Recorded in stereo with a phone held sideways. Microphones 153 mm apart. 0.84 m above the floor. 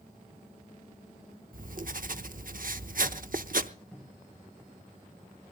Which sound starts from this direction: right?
Writing, at 1.5 s.